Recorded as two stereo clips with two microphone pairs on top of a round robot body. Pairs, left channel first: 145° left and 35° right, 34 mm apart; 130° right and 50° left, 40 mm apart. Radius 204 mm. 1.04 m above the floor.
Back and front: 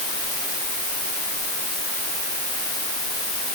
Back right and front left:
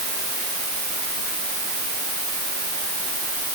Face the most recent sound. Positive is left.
No sound to turn to.